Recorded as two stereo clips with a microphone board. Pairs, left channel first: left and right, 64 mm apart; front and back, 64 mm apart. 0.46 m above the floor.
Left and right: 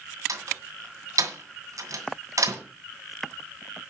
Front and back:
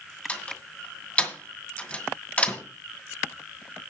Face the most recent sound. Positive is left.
turn(degrees=-65)